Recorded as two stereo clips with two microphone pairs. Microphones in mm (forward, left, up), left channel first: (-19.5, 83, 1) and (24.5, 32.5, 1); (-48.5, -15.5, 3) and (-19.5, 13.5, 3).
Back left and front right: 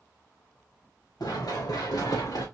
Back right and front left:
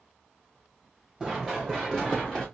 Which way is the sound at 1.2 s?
130° left.